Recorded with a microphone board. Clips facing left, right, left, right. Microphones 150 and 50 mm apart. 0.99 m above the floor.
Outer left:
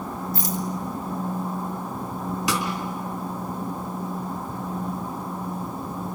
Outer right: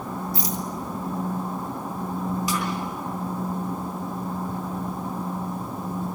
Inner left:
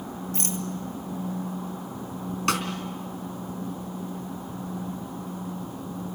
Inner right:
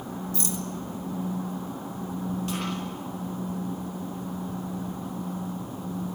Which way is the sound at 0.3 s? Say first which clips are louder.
Outer left 4 dB, inner left 2 dB; 50° left (ahead or behind).